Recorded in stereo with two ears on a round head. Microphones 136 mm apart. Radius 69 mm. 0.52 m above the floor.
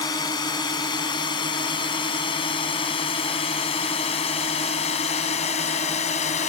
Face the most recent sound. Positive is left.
turn(degrees=45)  # may be behind; listen again after turning